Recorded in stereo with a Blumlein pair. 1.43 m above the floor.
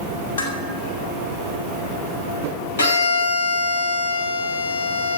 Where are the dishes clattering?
60° left, 2.5 m.